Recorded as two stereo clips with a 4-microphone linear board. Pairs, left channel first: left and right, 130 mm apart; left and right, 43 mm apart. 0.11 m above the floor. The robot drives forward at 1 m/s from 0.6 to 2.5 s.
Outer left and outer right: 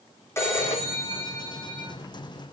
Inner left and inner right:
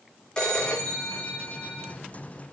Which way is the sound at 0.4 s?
20° left (ahead or behind).